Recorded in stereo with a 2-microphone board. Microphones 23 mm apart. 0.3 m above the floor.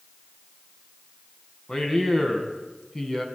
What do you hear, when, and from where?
1.7 s a man speaking: 20° left (ahead or behind), 3 m